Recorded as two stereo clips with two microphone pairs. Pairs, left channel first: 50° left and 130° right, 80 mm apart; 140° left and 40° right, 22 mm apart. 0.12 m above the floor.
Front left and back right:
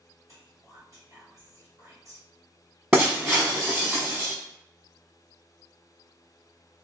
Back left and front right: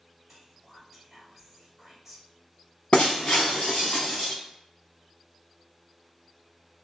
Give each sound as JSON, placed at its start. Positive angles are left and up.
{"t": 0.3, "sound": "whispering", "azimuth_deg": -110, "distance_m": 1.8}
{"t": 2.9, "sound": "breaking glass", "azimuth_deg": 160, "distance_m": 1.1}